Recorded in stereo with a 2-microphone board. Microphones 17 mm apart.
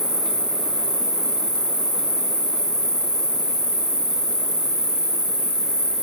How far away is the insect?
About 1.3 m.